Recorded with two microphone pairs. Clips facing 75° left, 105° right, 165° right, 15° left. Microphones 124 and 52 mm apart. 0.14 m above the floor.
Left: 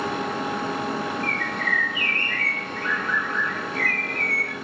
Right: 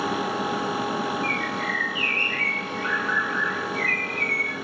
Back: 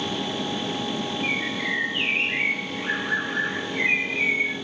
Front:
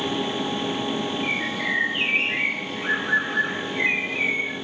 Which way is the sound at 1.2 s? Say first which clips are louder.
Right 1 dB, front 1 dB; 95° left.